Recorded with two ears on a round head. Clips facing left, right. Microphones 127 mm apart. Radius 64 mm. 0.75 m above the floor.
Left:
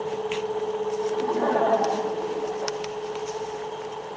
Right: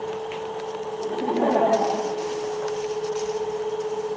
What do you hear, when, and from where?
1.0 s laughter: 35° right (ahead or behind), 1.7 m; by 2.8 s 25° left (ahead or behind), 1.2 m